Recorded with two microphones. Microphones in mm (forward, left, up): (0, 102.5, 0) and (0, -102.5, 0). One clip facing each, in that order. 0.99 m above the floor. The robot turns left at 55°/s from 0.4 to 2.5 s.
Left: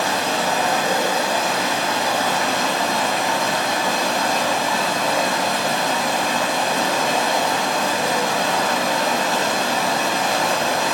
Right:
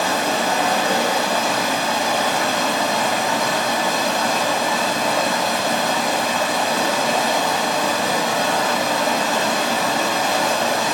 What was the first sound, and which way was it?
Running water, 65° right.